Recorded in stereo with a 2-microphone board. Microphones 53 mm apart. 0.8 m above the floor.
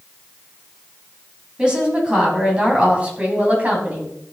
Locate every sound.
1.6 s a woman speaking: 15° right (ahead or behind), 5 m; by 4.1 s 30° right (ahead or behind), 5 m